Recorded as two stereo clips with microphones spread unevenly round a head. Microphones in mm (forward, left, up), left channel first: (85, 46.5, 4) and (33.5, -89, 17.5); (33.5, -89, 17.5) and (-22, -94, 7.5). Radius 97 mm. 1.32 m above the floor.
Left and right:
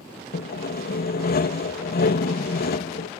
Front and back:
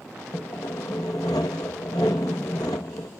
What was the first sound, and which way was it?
Sawing, 60° left.